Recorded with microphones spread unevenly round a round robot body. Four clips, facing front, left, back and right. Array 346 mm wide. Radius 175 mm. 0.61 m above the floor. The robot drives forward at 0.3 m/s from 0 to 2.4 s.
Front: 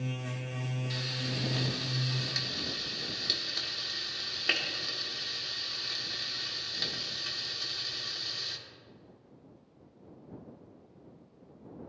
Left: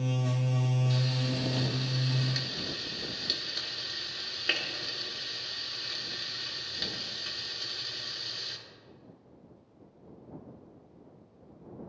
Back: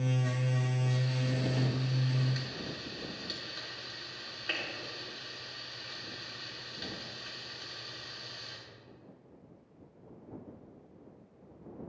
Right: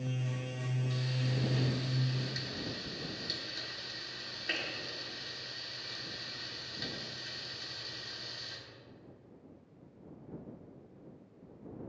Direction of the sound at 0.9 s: 30° left.